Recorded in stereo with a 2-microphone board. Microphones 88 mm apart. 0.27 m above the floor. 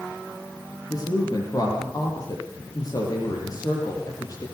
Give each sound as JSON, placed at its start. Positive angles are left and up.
{"t": 0.9, "sound": "a woman speaking", "side_deg": 40, "distance_m": 7.0}